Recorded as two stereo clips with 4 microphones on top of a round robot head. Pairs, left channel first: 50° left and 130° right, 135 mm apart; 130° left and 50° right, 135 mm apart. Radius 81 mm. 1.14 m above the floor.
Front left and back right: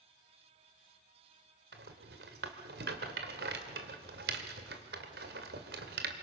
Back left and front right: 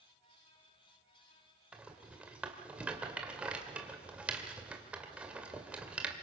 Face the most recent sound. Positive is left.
turn(degrees=-130)